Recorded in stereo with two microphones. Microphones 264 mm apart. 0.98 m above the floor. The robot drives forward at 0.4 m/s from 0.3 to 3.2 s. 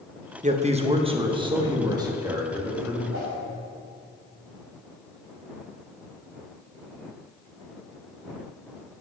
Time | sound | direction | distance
0.4 | a man speaking | 30° right (ahead or behind) | 0.7 m
3.1 | a whoosh | 60° right (ahead or behind) | 3 m